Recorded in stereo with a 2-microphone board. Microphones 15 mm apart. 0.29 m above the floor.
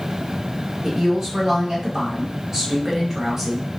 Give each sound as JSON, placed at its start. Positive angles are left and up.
{"t": 0.8, "sound": "a woman speaking", "side_deg": -25, "distance_m": 1.3}